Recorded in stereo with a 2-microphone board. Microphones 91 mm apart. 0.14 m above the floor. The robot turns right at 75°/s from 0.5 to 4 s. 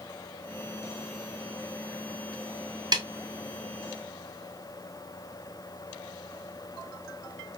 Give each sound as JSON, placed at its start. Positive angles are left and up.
{"t": 2.9, "sound": "a snare drum", "side_deg": -50, "distance_m": 0.6}